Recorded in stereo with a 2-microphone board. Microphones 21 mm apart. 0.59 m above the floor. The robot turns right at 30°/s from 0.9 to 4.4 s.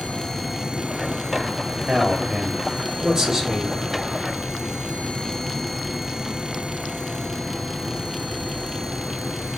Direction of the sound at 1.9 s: 30° right (ahead or behind).